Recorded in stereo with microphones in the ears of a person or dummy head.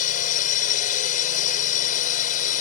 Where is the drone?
45° left (ahead or behind).